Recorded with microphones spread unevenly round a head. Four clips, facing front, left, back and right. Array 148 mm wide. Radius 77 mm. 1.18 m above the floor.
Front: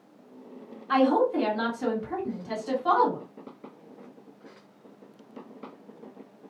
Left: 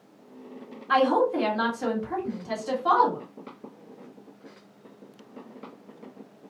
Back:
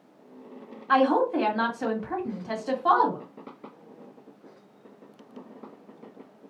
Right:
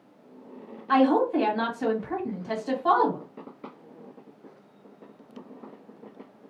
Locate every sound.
0.9 s a woman speaking: 170° right, 1.6 m